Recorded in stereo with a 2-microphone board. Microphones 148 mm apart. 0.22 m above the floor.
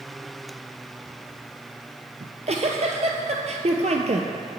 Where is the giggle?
50° right (ahead or behind), 0.8 m.